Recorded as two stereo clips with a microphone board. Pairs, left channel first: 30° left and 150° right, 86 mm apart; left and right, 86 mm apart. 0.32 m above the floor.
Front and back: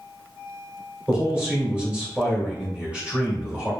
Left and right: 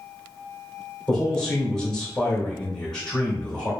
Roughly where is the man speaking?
Behind left.